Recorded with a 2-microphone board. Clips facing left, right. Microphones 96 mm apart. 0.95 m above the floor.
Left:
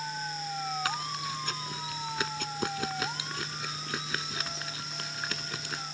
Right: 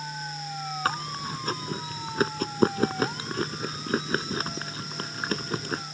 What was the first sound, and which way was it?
Chewing, 40° right (ahead or behind).